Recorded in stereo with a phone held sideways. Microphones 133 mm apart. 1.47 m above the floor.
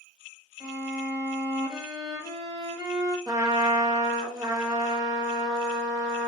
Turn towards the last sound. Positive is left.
turn(degrees=-30)  # may be behind; listen again after turning